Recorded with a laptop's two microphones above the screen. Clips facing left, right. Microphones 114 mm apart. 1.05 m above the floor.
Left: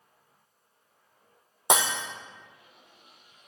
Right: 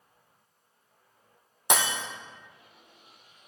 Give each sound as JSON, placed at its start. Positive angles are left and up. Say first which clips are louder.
{"t": 1.7, "sound": "breaking glass", "louder": "left 2 dB", "side_deg": 25, "distance_m": 1.4}